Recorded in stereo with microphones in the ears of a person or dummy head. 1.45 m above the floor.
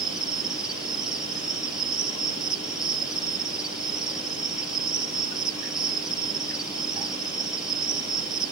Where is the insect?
Centre (ahead or behind), 1.1 m.